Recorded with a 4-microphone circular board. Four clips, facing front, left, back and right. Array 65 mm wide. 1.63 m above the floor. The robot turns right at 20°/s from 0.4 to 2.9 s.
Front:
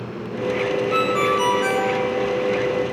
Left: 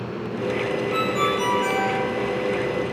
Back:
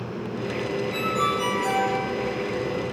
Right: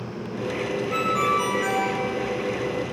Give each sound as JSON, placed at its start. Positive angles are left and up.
{"t": 0.9, "sound": "a ringtone", "azimuth_deg": -15, "distance_m": 7.0}